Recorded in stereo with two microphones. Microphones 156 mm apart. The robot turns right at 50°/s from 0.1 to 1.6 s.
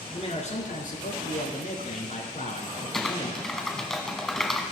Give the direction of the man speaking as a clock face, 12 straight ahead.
10 o'clock.